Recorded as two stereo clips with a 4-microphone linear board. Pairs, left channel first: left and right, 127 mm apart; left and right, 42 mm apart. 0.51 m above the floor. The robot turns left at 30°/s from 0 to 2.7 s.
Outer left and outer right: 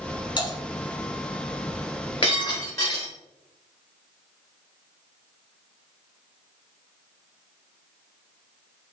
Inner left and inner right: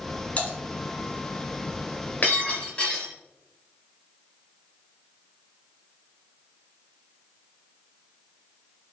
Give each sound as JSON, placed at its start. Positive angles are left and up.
{"t": 0.4, "sound": "typing on a keyboard", "side_deg": 40, "distance_m": 4.0}
{"t": 2.2, "sound": "breaking glass", "side_deg": 40, "distance_m": 4.0}